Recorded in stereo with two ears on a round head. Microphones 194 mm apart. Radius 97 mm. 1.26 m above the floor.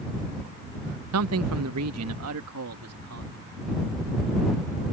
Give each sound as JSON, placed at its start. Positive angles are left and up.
{"t": 1.1, "sound": "a man speaking", "side_deg": -75}